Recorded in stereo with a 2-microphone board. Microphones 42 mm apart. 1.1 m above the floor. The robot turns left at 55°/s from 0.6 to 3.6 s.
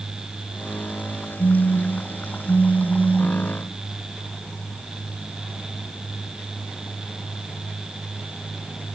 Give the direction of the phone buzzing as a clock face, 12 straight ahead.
9 o'clock.